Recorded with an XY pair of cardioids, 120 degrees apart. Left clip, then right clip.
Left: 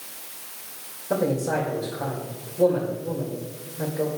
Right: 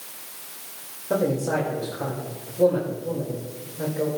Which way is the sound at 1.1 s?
5° right.